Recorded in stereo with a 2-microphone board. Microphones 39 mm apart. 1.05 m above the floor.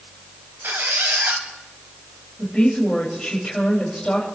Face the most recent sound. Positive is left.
turn(degrees=10)  # may be behind; listen again after turning